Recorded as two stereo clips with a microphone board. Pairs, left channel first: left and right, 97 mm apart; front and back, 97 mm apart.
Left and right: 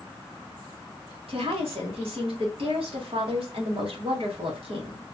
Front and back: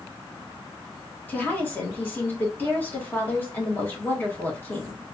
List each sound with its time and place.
1.3 s a woman speaking: 70° right, 1.4 m